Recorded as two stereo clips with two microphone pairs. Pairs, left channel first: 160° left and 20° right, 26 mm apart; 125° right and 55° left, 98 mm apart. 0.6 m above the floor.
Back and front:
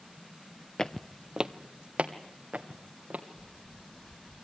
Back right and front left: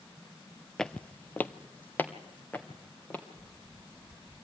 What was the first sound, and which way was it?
Footsteps, 160° left.